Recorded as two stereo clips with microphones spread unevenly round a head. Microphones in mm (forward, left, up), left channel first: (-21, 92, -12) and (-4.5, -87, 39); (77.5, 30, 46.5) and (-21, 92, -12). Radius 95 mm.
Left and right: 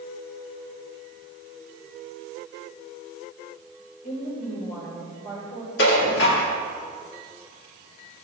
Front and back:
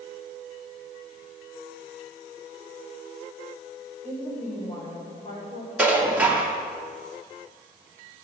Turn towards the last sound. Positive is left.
turn(degrees=65)